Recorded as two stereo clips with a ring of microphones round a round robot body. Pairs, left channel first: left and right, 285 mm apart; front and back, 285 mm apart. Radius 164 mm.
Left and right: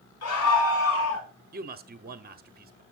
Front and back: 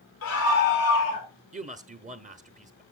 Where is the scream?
50° left, 4.5 m; by 1.3 s 45° left, 5.5 m.